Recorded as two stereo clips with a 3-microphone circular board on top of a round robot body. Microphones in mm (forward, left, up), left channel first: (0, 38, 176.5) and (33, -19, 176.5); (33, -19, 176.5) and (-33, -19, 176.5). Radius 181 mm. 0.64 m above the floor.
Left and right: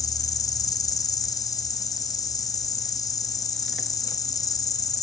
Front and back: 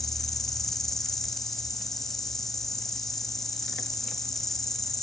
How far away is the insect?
About 0.8 m.